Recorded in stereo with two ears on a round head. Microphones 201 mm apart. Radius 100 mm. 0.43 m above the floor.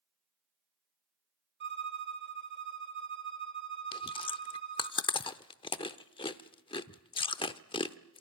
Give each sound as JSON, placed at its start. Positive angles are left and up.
{"t": 1.6, "sound": "a violin", "side_deg": -50, "distance_m": 2.0}
{"t": 3.9, "sound": "chewing", "side_deg": 20, "distance_m": 0.7}